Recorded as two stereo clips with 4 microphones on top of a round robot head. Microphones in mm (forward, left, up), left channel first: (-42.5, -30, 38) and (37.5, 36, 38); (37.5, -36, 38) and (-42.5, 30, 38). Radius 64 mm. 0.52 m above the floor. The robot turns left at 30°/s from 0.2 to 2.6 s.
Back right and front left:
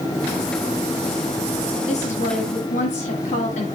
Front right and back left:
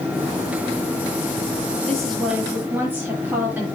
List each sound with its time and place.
1.9 s a woman speaking: 125° right, 9 m; by 3.6 s 145° right, 9 m